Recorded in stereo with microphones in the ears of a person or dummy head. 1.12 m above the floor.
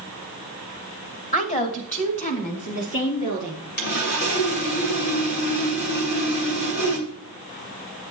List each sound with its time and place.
1.3 s a woman speaking: 35° left (ahead or behind), 1.2 m; by 3.7 s 40° left (ahead or behind), 3 m
3.8 s sawing: 55° left (ahead or behind), 1.5 m